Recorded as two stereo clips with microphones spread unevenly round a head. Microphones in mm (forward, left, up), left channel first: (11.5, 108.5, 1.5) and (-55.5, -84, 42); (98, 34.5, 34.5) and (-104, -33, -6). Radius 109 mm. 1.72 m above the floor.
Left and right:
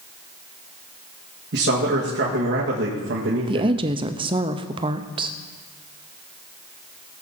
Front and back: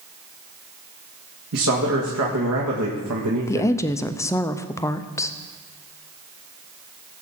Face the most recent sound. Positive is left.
turn(degrees=-50)